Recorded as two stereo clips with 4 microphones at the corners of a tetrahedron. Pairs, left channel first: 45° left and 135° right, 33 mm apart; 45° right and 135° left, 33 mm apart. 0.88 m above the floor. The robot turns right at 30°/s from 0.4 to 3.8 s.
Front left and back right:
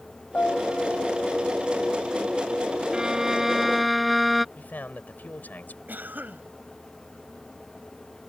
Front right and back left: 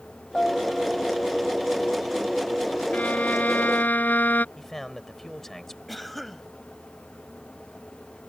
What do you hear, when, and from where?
0.3 s a piano: 20° left; by 1.2 s 45° left
2.9 s a violin: 70° right; by 4.5 s 45° right
4.5 s a man speaking: 35° left
5.9 s a cough: 130° right